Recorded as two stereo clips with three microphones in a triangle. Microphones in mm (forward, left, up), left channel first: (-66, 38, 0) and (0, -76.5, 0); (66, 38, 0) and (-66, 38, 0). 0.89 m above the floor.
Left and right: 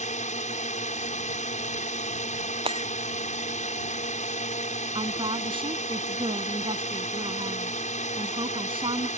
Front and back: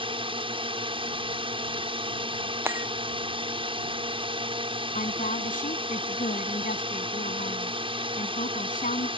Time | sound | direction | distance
0.0 | a drone | 135° left | ?
2.6 | breaking glass | 105° right | ?
5.0 | a woman speaking | 10° right | ?